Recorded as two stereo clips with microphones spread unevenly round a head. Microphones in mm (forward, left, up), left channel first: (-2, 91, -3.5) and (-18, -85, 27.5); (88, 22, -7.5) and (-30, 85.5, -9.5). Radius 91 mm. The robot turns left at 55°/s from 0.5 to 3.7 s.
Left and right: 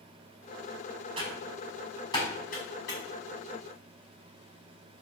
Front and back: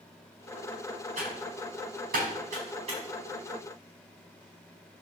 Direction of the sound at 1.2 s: 150° right.